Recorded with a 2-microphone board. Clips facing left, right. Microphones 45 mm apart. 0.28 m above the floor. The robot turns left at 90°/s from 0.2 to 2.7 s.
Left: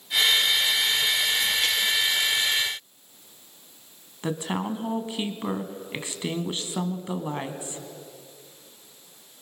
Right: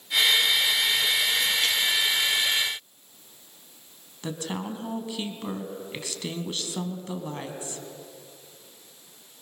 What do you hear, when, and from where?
4.2 s a woman speaking: 25° left (ahead or behind), 2 m